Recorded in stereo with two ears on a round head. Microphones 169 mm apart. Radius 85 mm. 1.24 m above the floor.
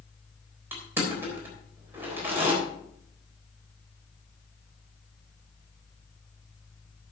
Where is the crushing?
10° right (ahead or behind), 3.5 m.